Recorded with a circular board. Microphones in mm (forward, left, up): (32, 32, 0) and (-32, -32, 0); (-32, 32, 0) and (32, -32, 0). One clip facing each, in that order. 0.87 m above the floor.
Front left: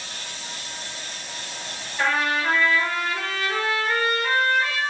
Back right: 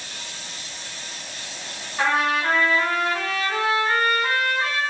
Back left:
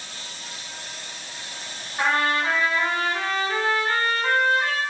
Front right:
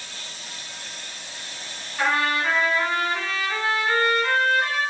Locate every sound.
2.0 s a trumpet: 170° right, 1.9 m